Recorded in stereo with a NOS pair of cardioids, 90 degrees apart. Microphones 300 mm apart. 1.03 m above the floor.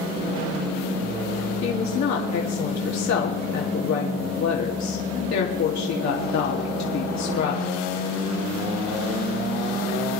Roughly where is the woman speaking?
Ahead left.